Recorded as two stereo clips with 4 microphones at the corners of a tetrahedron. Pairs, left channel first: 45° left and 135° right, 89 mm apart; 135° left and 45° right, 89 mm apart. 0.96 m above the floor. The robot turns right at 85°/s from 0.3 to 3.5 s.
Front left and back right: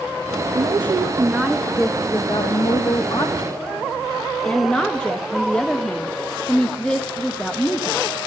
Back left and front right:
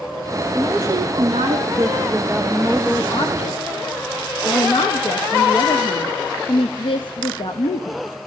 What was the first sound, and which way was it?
A woman speaking, 125° right.